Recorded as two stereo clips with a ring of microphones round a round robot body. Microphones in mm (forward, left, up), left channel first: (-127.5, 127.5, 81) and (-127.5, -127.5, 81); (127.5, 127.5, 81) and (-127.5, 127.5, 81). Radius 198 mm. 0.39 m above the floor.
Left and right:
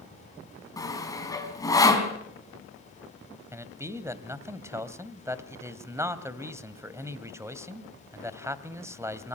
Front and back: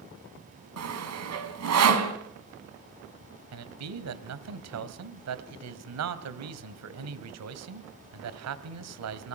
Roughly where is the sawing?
Behind.